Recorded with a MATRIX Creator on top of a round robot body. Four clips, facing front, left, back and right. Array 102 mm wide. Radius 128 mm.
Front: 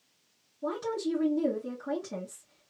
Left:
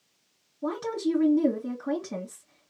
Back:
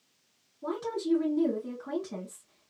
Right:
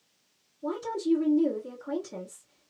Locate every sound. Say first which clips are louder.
0.6 s a woman speaking: left 1 dB, even; 85° left, 1.3 m